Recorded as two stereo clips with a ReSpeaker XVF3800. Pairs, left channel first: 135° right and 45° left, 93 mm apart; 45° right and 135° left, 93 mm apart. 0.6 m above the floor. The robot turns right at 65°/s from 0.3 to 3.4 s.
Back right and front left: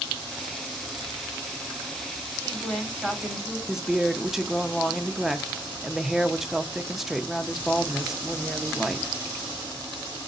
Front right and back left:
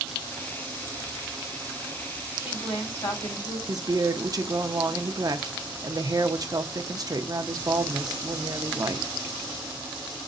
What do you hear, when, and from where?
2.4 s a woman speaking: 85° right, 4 m; by 3.6 s 15° right, 4 m
3.7 s a woman speaking: 130° left, 0.8 m